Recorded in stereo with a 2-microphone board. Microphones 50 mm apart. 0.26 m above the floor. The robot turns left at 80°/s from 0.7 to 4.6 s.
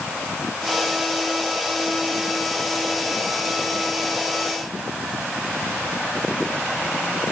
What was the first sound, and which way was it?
Only background noise.